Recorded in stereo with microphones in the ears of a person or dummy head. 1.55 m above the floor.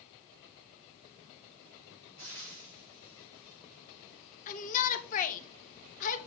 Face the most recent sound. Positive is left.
turn(degrees=40)  # may be behind; listen again after turning